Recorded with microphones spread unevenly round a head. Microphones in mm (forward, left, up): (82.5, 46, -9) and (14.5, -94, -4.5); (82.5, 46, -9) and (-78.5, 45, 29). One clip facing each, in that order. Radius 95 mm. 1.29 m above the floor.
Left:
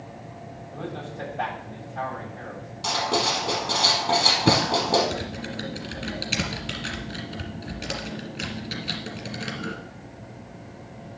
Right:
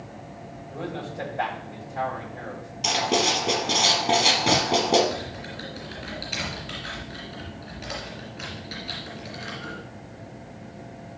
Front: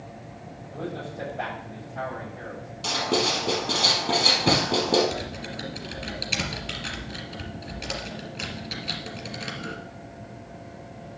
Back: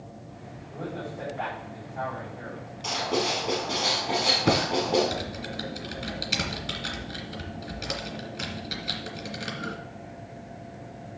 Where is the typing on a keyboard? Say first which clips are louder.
Left 2 dB, front 1 dB; 105° left, 2.5 m.